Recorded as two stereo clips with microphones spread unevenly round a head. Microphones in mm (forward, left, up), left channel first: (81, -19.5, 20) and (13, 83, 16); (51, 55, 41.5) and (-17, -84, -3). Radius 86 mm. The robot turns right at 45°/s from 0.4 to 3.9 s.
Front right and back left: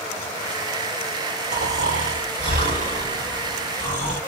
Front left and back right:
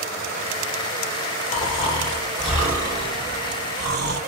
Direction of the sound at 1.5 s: 110° left.